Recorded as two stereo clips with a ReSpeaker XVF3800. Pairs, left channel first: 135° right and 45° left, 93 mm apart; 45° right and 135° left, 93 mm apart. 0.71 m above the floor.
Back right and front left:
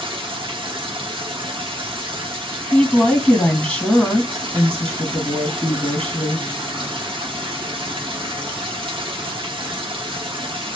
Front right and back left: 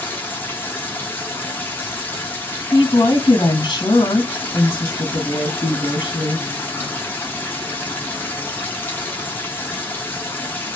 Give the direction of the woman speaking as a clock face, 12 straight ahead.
2 o'clock.